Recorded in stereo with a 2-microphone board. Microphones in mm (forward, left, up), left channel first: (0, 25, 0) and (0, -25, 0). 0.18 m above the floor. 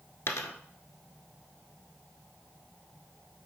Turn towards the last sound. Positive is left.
turn(degrees=65)  # may be behind; listen again after turning